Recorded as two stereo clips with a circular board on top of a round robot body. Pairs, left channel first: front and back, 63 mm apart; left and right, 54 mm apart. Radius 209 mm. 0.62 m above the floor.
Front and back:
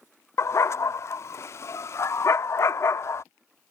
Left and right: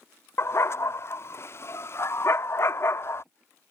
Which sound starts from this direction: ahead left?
A dog barking, at 0.4 s.